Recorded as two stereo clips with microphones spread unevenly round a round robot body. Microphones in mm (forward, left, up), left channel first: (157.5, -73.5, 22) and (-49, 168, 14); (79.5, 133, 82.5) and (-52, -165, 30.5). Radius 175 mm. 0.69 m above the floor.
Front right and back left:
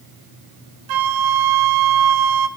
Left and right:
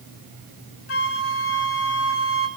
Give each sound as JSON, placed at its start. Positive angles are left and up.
{"t": 0.9, "sound": "a flute", "azimuth_deg": 120, "distance_m": 2.0}